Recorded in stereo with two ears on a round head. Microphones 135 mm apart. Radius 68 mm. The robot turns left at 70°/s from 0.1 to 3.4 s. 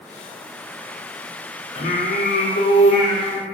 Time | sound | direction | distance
1.8 | singing | 130° left | 1.2 m